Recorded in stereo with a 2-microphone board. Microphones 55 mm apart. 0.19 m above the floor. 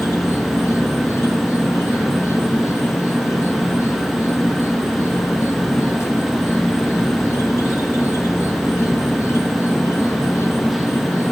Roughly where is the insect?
Left.